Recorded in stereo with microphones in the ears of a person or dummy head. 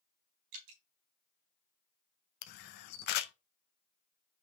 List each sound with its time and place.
0.5 s dripping: 80° right, 4 m
2.4 s a camera shutter: 55° left (ahead or behind), 0.5 m